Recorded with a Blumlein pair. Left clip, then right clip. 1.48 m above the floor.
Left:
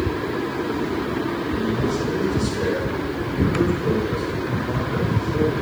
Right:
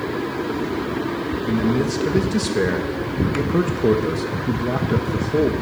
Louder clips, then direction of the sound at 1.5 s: Right 2 dB; 35° right.